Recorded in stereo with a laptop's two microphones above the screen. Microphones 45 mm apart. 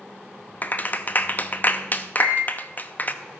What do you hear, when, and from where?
0.6 s a clap: 40° left (ahead or behind), 0.7 m
2.1 s a microwave: 90° left, 8 m